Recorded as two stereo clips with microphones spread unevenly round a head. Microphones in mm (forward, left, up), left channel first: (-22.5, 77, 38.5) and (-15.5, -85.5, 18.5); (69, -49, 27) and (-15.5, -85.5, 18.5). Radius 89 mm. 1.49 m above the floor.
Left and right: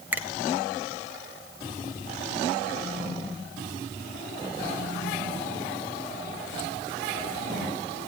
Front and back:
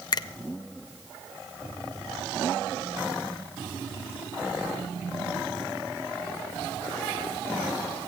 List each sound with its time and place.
0.1 s a finger snap: 5° right, 0.6 m